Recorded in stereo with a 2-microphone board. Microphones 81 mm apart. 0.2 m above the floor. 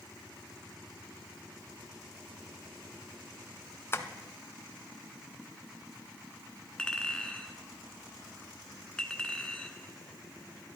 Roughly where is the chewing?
No chewing in this recording.